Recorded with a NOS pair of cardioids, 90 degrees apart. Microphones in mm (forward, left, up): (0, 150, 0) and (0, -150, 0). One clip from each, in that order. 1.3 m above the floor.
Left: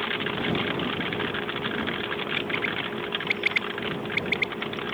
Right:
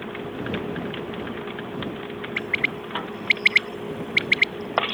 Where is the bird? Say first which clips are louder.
Right 6 dB; 55° right.